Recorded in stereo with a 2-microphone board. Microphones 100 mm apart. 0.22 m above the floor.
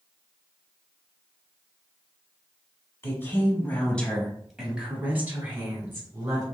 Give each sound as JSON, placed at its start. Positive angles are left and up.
{"t": 3.0, "sound": "a woman speaking", "side_deg": 25, "distance_m": 1.4}